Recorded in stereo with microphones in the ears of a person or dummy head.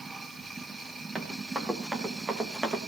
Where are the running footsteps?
5° left (ahead or behind), 5.5 m.